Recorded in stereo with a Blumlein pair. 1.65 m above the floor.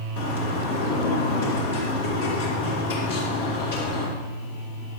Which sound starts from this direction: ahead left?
A bird, at 0.2 s.